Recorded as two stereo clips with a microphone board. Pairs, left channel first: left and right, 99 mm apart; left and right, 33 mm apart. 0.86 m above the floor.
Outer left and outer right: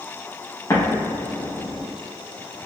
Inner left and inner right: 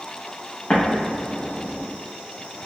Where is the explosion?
35° left (ahead or behind), 0.9 m.